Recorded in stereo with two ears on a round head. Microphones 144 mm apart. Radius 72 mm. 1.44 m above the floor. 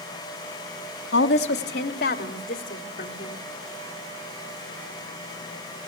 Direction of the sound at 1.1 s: 80° left.